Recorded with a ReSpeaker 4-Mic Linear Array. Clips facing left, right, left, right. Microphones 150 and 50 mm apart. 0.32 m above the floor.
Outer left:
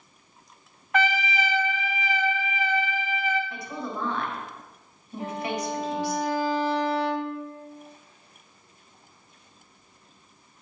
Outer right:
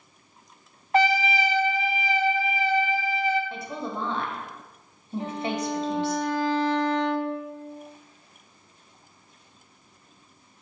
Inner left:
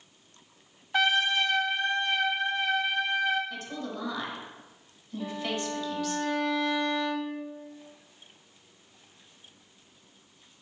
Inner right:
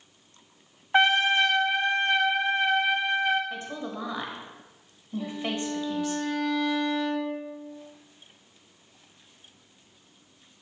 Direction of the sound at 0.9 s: 30° right (ahead or behind).